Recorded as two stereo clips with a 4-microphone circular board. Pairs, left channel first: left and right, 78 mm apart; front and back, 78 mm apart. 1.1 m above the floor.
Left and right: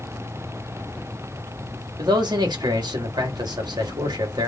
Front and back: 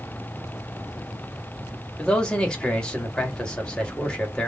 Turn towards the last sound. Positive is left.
turn(degrees=-80)